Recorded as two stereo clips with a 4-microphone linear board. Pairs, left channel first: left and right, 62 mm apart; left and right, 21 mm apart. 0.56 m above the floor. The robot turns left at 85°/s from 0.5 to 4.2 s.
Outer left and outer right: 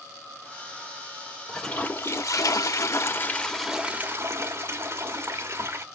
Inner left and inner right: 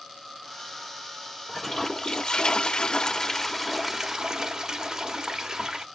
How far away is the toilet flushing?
About 1.4 m.